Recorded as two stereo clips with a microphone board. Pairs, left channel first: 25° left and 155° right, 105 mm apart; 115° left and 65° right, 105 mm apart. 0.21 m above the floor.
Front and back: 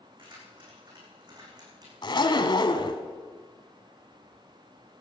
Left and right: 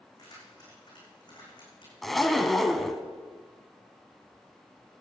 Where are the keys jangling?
165° left, 8 m; by 1.9 s 155° left, 8.5 m.